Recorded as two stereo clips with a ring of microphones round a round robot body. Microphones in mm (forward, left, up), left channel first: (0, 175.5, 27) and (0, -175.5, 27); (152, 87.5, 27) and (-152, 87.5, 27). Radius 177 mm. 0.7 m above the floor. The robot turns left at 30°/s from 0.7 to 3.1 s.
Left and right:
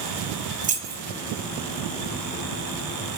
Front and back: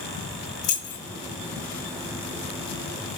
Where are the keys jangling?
25° right, 0.7 m; by 1.0 s 35° right, 0.7 m.